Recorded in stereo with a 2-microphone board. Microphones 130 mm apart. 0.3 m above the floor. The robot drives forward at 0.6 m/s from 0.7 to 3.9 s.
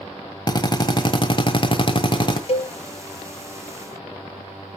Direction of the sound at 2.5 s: 50° left (ahead or behind).